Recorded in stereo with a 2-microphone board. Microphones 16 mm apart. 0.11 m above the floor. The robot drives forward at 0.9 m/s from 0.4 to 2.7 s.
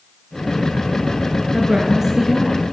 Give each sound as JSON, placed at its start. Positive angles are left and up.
{"t": 1.5, "sound": "a woman speaking", "side_deg": -25, "distance_m": 1.3}